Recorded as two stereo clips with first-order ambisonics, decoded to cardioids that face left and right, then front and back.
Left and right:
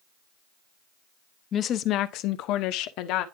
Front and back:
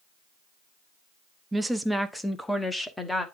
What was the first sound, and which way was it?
A woman speaking, 110° left.